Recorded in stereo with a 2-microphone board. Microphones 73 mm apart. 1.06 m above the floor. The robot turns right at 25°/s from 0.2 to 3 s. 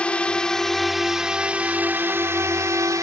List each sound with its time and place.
0.0 s a drone: 165° left; by 3.0 s 125° right